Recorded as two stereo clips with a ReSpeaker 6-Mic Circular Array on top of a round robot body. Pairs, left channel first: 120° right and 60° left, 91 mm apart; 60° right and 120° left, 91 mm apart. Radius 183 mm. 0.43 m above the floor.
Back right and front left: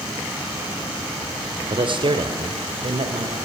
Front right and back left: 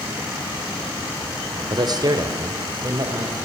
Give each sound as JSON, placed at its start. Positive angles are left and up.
{"t": 1.7, "sound": "a man speaking", "azimuth_deg": 85, "distance_m": 2.5}